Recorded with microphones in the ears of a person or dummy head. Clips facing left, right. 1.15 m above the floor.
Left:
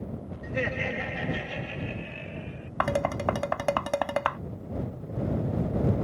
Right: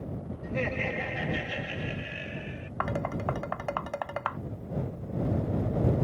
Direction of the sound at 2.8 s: 55° left (ahead or behind).